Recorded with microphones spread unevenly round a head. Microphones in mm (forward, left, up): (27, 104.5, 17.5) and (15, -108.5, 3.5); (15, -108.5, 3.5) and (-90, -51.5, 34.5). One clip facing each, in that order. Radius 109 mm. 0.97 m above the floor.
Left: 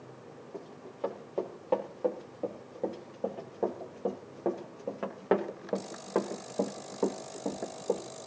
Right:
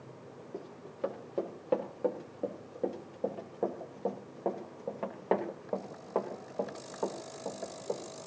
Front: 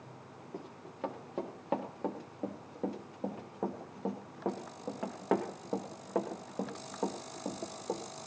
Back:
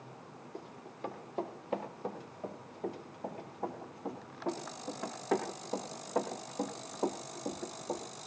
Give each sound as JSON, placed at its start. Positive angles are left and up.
{"t": 0.5, "sound": "running footsteps", "azimuth_deg": -25, "distance_m": 5.0}